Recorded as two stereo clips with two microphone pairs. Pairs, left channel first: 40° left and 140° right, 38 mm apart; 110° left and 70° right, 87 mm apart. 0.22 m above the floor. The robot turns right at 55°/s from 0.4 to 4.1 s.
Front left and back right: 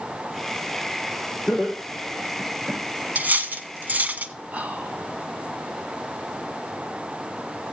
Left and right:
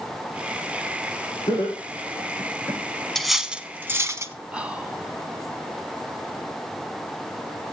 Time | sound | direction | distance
1.5 | laughter | 115° left | 8 m
3.1 | cutlery clinking | 165° right | 0.9 m
4.5 | whispering | 140° right | 1.4 m